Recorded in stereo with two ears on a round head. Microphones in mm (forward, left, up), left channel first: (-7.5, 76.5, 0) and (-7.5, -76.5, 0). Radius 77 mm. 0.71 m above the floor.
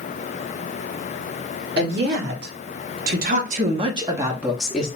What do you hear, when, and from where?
1.8 s a woman speaking: 70° right (ahead or behind), 1.5 m; by 4.9 s 5° left (ahead or behind), 0.9 m